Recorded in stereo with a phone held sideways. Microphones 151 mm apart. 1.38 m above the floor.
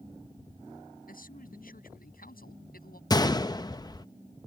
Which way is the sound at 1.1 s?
70° left (ahead or behind).